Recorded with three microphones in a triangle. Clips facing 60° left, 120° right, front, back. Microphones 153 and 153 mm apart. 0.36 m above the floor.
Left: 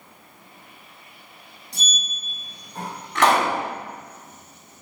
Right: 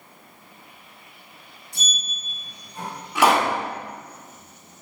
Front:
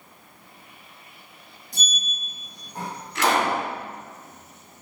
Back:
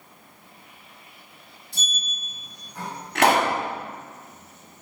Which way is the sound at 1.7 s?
50° left.